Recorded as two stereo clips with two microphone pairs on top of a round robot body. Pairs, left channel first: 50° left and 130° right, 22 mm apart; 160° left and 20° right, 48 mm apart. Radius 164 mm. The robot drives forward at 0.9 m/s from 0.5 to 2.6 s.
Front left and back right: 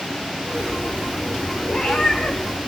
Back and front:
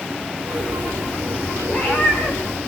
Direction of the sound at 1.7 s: 95° left.